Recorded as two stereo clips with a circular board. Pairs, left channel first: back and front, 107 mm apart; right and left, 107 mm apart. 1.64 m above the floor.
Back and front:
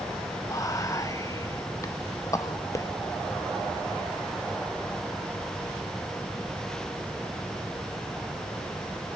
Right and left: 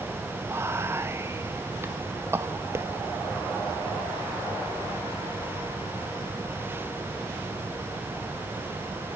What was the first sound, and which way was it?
Whispering, 140° left.